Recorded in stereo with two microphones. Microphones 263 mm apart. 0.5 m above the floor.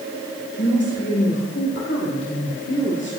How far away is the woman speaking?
About 1.7 m.